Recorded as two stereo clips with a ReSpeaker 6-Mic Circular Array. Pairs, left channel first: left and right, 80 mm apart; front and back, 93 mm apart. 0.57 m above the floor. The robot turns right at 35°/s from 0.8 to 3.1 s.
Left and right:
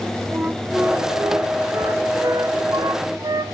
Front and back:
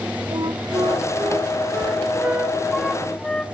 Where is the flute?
160° right, 0.7 m; by 3.5 s 80° right, 0.7 m.